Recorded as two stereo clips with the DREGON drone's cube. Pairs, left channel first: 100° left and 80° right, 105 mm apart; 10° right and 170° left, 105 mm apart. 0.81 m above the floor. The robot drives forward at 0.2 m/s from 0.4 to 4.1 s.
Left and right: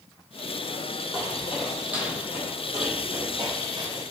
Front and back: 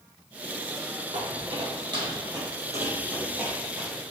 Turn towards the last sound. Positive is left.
turn(degrees=-105)